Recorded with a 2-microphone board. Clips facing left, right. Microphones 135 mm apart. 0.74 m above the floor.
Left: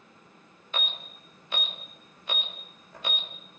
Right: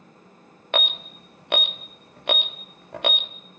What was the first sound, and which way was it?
An alarm, 70° right (ahead or behind).